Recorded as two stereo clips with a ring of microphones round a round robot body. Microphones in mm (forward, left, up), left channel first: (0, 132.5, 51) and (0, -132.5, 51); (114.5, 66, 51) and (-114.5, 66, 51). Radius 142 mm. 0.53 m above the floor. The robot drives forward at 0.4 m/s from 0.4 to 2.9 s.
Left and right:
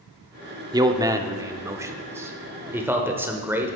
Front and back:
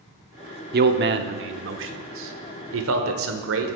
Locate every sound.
0.7 s a man speaking: 160° right, 0.9 m; by 3.8 s 170° right, 1.6 m